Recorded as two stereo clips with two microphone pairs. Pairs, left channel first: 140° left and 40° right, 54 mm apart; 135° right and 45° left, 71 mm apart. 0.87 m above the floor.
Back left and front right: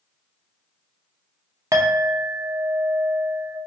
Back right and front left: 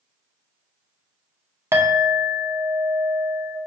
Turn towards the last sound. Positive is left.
turn(degrees=-10)